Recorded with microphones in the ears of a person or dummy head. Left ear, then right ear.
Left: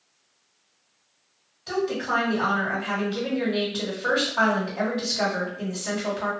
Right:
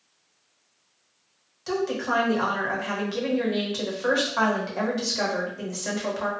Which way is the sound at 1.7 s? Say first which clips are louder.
Even; 50° right (ahead or behind).